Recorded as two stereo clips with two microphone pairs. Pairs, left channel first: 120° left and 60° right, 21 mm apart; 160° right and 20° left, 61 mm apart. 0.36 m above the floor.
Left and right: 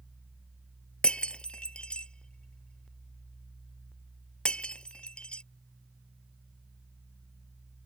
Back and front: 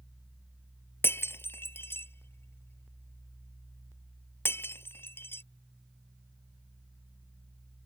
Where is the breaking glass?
155° left.